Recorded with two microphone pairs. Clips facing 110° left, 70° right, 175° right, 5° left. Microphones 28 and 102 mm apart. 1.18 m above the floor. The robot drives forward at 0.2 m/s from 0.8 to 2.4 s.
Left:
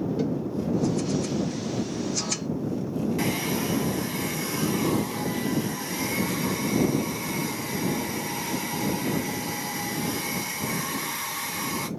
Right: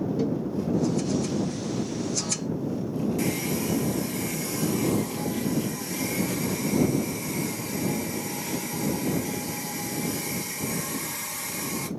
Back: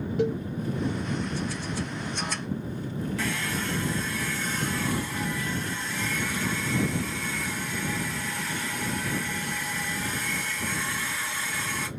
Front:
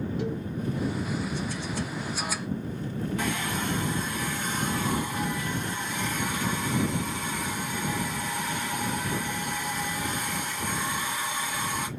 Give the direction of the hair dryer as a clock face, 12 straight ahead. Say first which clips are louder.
Left 1 dB, front 1 dB; 10 o'clock.